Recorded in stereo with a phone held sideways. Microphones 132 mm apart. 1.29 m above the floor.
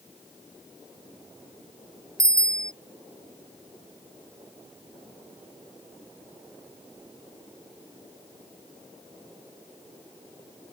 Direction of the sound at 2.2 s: 25° right (ahead or behind).